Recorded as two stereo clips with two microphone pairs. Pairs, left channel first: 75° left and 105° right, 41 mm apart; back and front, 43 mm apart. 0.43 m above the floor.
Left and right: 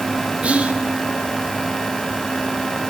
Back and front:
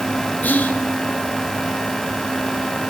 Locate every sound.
0.4 s whispering: 155° right, 1.7 m